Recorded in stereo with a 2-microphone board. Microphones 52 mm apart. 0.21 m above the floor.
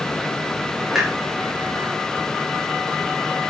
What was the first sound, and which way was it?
A clunk, 5° right (ahead or behind).